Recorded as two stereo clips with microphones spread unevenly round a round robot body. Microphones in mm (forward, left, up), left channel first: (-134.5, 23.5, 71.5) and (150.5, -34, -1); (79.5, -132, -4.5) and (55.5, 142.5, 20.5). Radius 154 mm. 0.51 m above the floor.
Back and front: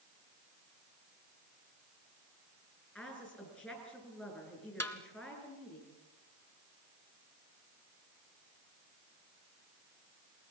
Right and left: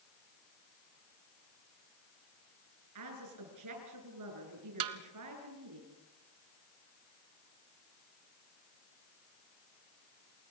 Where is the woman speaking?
80° left, 8.5 m.